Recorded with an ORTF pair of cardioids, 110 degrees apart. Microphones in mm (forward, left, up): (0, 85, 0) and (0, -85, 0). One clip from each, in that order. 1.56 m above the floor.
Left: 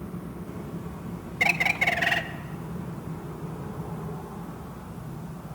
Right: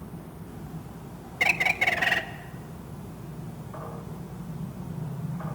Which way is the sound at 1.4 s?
Straight ahead.